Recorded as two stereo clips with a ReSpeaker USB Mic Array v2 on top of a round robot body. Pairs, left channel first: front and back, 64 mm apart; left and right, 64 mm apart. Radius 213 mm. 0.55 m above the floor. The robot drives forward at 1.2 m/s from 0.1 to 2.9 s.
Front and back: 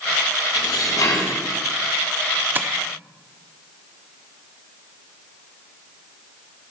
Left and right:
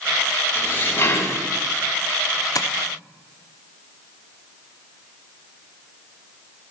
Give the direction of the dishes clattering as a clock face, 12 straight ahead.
11 o'clock.